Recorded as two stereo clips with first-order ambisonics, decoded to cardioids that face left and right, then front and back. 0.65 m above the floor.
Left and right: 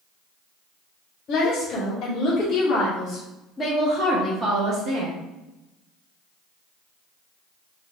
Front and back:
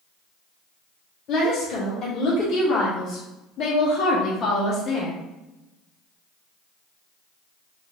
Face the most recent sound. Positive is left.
turn(degrees=-60)